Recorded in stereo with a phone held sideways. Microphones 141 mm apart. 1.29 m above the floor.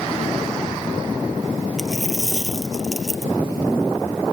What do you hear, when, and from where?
1.8 s a dropped coin: centre (ahead or behind)